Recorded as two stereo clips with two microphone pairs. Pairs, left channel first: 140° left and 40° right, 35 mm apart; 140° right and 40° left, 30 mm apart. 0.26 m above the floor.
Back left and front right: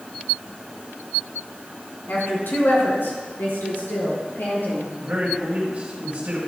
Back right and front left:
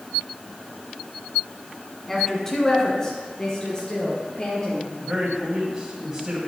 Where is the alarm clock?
I don't hear an alarm clock.